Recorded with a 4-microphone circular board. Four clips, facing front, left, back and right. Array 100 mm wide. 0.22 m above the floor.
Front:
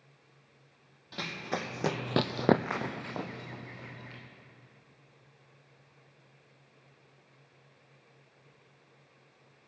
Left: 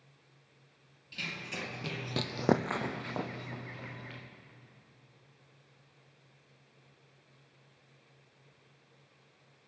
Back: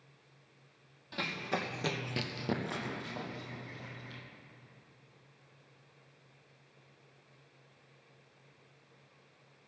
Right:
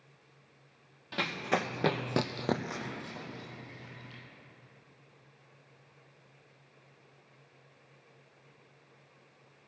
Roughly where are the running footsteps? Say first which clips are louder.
Right 10 dB, even; right.